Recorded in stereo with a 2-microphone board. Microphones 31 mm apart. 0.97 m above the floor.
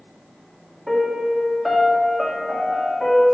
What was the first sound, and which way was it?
A piano, 5° left (ahead or behind).